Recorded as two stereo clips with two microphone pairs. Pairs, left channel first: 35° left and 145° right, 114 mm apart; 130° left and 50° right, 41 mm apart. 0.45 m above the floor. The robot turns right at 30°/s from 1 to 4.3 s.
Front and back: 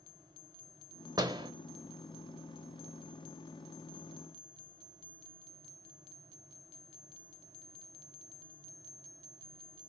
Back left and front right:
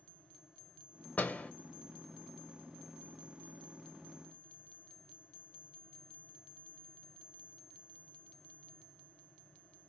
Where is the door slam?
170° left, 0.9 m; by 1.5 s straight behind, 0.9 m.